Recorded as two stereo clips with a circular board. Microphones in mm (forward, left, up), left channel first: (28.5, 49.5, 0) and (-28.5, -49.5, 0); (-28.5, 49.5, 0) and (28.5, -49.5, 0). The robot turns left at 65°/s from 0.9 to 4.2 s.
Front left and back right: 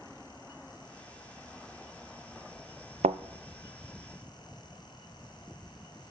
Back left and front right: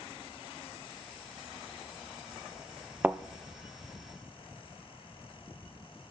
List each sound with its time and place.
3.0 s a thud: 135° right, 0.5 m; by 3.2 s 145° right, 0.5 m